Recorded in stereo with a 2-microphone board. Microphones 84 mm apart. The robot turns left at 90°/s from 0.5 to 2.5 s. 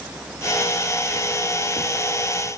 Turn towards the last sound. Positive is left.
No sound to turn to.